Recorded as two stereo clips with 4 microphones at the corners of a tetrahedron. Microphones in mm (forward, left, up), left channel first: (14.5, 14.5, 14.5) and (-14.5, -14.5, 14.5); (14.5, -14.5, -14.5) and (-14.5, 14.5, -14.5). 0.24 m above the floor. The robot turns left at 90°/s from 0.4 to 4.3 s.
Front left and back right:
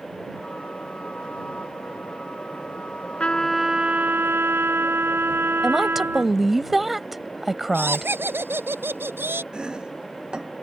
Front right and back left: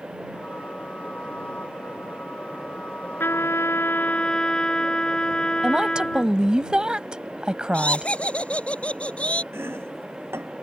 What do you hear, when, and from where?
3.2 s a trumpet: 15° right; by 6.4 s 115° right
5.6 s a woman speaking: 145° left
7.7 s laughter: 110° right
9.5 s chopping: 155° left